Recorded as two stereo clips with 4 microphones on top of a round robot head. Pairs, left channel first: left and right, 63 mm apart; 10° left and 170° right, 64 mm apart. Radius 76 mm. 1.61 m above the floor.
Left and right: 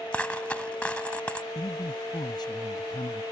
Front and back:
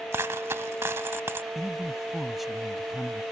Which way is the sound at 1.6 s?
100° left.